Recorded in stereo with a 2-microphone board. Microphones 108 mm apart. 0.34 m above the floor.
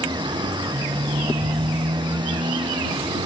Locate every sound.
0.0 s a motorcycle: 45° right (ahead or behind)